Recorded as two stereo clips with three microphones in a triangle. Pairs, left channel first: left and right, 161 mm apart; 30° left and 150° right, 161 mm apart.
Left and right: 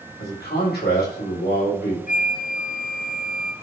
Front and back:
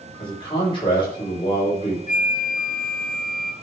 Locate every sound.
0.2 s a man speaking: 90° left, 5 m
2.1 s a flute: 60° left, 0.7 m